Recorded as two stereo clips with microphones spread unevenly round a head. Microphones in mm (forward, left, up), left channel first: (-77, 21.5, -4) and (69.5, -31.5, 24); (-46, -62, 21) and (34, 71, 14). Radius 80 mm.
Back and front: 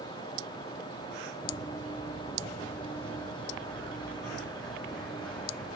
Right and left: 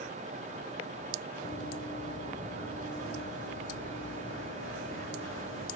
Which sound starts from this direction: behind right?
Running footsteps, at 1.4 s.